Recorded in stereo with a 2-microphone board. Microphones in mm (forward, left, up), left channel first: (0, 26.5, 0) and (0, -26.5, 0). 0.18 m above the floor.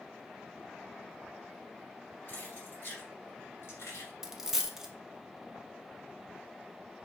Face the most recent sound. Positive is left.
turn(degrees=-10)  # may be behind; listen again after turning